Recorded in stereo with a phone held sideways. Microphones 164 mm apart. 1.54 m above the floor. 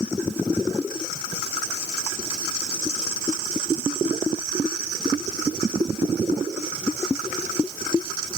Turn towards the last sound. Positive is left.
No sound to turn to.